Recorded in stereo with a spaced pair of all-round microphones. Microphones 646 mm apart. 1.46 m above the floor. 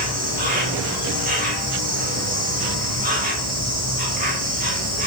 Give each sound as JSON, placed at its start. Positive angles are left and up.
{"t": 0.0, "sound": "an insect", "side_deg": -15, "distance_m": 1.5}